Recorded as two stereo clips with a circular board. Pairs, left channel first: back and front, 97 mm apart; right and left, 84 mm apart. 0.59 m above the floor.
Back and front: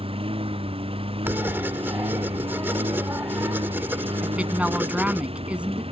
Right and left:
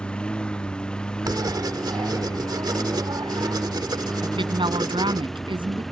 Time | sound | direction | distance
0.0 | a lawn mower | 10° right | ?
1.2 | writing | 65° left | ?
4.2 | a woman speaking | 80° left | ?